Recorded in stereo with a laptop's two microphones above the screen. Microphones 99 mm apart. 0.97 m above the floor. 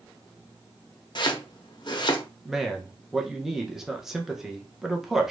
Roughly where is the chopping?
Left.